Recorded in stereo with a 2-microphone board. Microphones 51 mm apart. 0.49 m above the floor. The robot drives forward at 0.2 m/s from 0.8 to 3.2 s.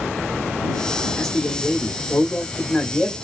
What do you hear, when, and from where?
1.2 s a man speaking: 10° left (ahead or behind), 1.0 m